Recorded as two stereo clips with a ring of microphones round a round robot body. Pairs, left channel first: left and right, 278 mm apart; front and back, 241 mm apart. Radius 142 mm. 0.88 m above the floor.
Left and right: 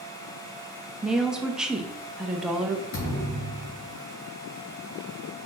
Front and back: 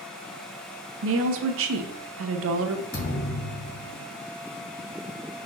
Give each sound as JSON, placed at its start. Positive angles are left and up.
{"t": 1.0, "sound": "a woman speaking", "azimuth_deg": -175, "distance_m": 0.6}
{"t": 2.9, "sound": "a thud", "azimuth_deg": 40, "distance_m": 1.7}